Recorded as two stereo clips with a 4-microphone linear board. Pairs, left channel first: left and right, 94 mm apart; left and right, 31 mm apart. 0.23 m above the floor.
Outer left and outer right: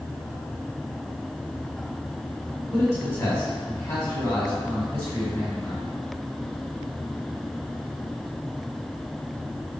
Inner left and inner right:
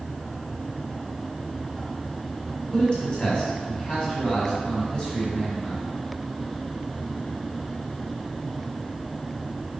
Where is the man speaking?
40° left (ahead or behind), 1.6 m.